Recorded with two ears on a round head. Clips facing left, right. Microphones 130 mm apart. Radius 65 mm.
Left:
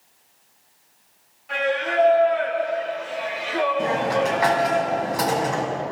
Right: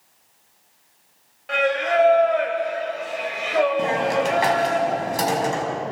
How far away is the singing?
About 4.5 m.